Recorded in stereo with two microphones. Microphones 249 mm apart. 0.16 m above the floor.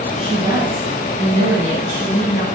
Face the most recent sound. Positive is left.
turn(degrees=65)  # may be behind; listen again after turning